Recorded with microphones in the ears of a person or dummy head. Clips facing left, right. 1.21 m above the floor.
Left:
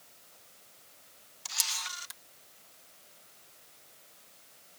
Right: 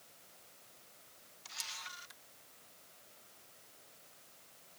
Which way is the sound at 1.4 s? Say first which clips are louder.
Left 8 dB; 65° left (ahead or behind).